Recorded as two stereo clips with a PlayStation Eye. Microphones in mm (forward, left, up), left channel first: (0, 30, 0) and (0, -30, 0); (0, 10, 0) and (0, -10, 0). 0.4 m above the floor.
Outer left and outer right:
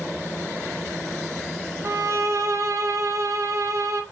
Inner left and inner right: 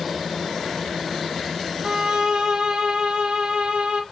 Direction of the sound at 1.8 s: 65° right (ahead or behind).